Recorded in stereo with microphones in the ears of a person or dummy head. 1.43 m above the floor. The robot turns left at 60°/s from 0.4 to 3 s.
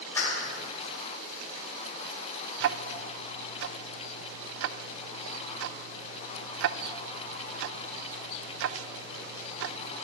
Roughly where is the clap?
Centre.